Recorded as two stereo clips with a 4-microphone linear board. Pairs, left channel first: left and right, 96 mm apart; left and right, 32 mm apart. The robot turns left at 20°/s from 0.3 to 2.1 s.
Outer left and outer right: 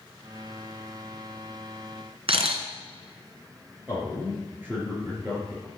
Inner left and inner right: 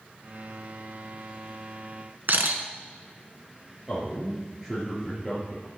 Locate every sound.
2.3 s a camera shutter: 70° right (ahead or behind), 1.4 m
3.9 s a man speaking: 20° right (ahead or behind), 3.5 m